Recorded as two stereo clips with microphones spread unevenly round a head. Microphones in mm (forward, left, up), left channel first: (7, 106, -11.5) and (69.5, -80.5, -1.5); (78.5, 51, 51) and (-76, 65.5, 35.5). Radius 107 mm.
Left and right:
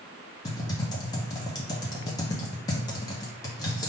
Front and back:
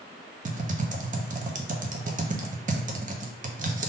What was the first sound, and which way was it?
Typing on a keyboard, 175° left.